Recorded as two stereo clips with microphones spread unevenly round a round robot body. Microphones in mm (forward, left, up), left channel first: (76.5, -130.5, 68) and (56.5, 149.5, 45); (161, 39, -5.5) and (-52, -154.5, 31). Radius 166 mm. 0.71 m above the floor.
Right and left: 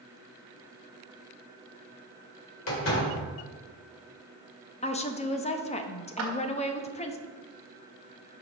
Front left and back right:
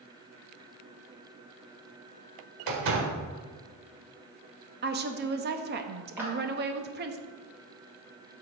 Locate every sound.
2.7 s a door slam: 135° right, 2.0 m
4.8 s a woman speaking: 135° right, 0.8 m
6.2 s a clap: 135° left, 1.7 m